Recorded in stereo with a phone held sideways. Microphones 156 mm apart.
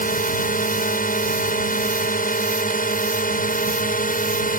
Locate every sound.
0.0 s a drone: 70° left (ahead or behind)